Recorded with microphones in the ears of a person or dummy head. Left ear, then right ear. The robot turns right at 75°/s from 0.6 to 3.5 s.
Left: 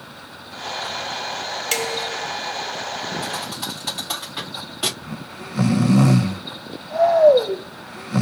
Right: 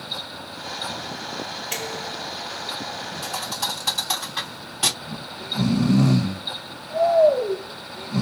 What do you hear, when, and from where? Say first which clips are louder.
1.7 s dishes clattering: left 8 dB; 70° left, 1.7 m; by 2.3 s 115° left, 1.7 m
3.2 s a thud: even; 15° left (ahead or behind), 2.5 m; by 4.9 s 5° right (ahead or behind), 2.5 m
5.0 s snoring: right 1 dB; 40° left (ahead or behind), 0.7 m